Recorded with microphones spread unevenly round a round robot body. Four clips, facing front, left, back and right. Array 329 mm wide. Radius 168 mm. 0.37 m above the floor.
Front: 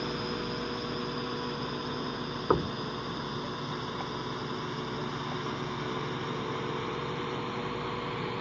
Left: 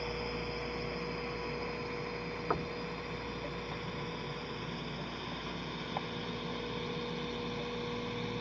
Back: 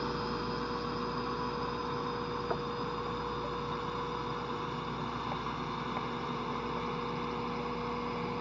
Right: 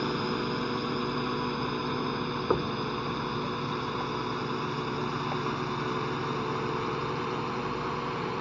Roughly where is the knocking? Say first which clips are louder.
Right 7 dB, front 12 dB; ahead right.